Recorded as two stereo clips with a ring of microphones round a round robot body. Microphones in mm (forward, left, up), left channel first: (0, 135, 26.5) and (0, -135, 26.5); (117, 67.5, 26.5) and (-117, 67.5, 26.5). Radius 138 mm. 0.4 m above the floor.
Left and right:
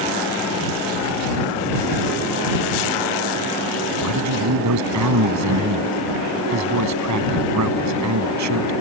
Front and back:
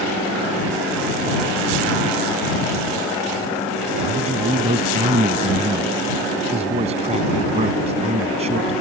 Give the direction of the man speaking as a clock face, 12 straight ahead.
4 o'clock.